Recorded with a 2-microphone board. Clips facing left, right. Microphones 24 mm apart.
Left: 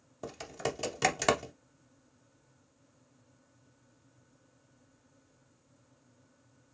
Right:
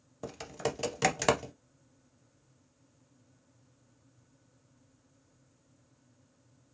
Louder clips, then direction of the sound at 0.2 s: Right 1 dB; centre (ahead or behind).